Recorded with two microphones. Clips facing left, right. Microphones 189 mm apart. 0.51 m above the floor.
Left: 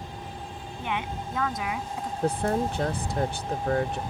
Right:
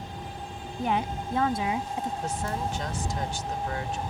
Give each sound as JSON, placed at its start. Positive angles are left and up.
{"t": 0.8, "sound": "a woman speaking", "side_deg": -40}
{"t": 2.2, "sound": "a woman speaking", "side_deg": 60}